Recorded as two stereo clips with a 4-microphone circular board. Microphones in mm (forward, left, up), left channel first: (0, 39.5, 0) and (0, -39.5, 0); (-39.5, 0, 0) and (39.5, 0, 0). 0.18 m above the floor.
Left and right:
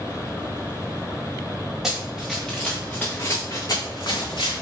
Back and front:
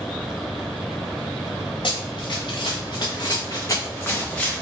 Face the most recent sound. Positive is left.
turn(degrees=100)